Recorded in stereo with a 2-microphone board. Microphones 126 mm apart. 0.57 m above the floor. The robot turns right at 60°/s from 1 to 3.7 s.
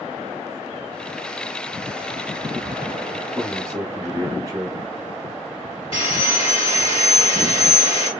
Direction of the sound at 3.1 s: 165° right.